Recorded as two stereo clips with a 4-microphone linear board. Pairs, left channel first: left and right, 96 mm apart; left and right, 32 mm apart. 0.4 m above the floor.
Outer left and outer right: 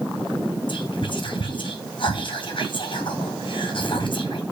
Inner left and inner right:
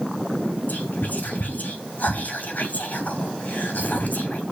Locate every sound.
0.7 s whispering: 60° left (ahead or behind), 2.5 m